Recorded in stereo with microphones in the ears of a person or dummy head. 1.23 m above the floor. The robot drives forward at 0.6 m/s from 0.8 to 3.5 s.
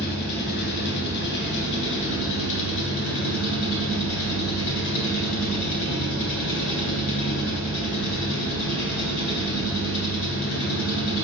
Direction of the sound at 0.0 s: 60° left (ahead or behind).